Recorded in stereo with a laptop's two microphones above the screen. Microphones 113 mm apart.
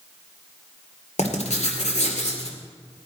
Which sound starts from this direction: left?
Writing, at 1.2 s.